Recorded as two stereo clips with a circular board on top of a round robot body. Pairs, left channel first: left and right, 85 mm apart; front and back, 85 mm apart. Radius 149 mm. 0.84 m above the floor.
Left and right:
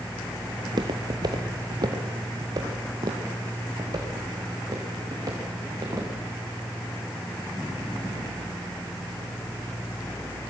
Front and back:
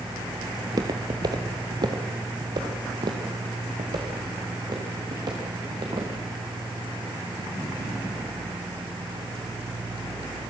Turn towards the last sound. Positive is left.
turn(degrees=-140)